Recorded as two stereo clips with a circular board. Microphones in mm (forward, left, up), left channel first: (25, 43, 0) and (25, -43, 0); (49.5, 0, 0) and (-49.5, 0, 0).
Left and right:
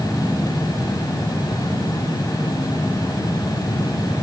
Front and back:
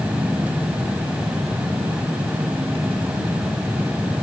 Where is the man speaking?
I don't hear a man speaking.